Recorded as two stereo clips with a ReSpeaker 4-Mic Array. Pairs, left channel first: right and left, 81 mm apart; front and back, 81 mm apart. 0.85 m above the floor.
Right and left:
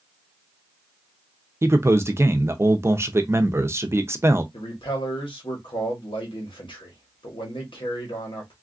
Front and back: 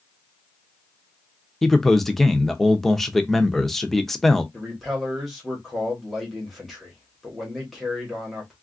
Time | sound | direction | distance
1.6 | a man speaking | 85° left | 0.5 m
4.5 | a man speaking | 90° right | 1.3 m